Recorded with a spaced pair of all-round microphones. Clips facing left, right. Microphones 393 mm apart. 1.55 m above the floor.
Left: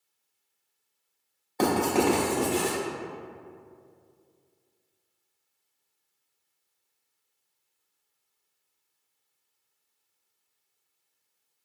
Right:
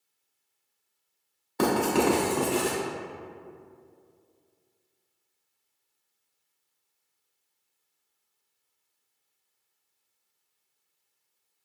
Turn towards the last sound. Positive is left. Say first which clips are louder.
# even
turn(degrees=-20)  # may be behind; listen again after turning